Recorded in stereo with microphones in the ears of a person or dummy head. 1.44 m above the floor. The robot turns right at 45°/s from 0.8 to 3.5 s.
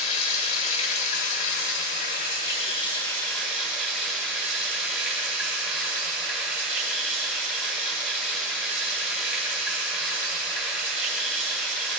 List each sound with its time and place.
0.0 s running water: 55° left, 1.8 m; by 12.0 s 175° left, 1.8 m